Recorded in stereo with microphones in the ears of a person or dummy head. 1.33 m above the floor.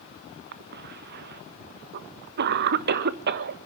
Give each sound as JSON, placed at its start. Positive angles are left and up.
{"t": 0.5, "sound": "a cough", "side_deg": -50, "distance_m": 1.2}